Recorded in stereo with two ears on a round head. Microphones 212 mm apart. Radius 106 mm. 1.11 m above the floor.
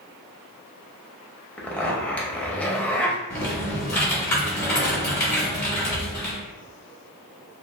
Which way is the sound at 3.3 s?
15° left (ahead or behind).